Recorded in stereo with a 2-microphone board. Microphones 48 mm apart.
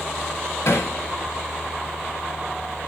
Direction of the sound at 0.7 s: 70° left (ahead or behind).